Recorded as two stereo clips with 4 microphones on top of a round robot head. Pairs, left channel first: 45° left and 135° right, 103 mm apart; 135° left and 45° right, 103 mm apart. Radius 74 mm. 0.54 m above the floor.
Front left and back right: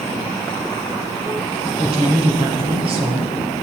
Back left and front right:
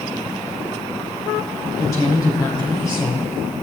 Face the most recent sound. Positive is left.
turn(degrees=-165)